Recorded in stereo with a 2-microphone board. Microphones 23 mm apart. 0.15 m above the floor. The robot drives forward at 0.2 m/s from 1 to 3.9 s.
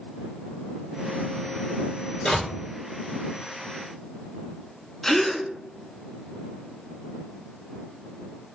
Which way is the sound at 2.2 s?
45° left (ahead or behind).